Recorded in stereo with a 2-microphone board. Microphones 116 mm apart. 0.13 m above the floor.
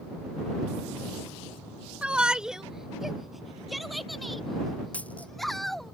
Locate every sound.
2.0 s a shout: 10° right (ahead or behind); by 5.9 s centre (ahead or behind)
4.9 s a dropped coin: 10° left (ahead or behind)